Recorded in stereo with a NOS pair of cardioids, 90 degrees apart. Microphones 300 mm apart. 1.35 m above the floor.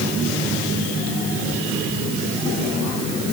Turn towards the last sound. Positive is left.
No sound to turn to.